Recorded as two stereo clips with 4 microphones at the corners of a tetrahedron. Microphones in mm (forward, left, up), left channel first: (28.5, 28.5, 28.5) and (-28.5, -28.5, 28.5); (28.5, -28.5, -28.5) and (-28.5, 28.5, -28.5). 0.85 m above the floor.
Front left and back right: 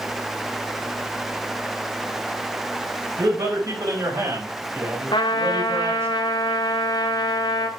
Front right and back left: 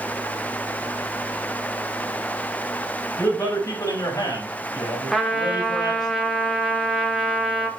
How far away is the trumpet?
About 1.9 m.